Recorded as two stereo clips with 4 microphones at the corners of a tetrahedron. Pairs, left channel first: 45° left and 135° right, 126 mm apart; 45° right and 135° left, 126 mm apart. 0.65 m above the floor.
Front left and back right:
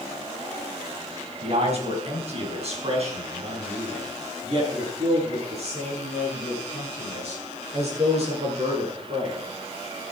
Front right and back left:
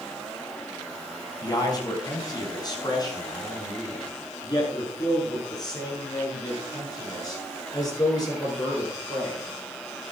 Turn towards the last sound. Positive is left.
turn(degrees=-105)